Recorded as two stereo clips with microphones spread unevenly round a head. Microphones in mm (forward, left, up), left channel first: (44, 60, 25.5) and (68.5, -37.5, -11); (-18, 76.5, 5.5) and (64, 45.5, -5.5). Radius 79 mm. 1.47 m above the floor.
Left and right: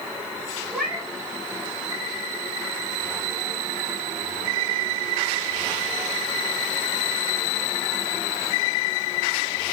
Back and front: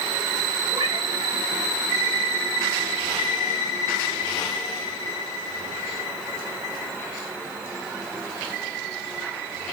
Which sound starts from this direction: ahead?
A cat meowing, at 0.7 s.